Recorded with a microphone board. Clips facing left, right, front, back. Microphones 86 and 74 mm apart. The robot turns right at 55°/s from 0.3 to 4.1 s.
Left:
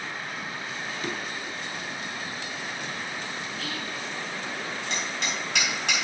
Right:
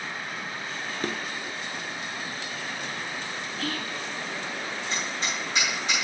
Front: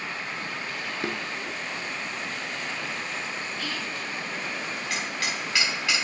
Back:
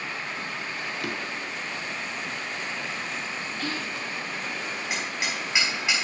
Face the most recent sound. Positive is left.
turn(degrees=110)